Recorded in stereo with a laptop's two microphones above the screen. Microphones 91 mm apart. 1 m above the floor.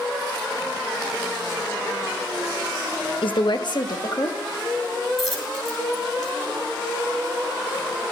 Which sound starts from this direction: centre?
A dropped coin, at 5.2 s.